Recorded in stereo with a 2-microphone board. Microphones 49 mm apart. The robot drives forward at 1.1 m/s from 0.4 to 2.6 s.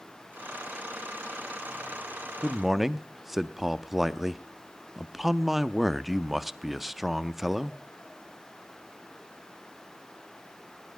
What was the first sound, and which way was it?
A man speaking, 5° right (ahead or behind).